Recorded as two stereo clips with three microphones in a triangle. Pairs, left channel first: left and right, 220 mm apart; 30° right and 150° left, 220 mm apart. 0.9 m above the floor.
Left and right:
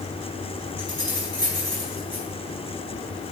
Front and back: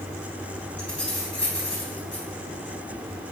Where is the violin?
No violin in this recording.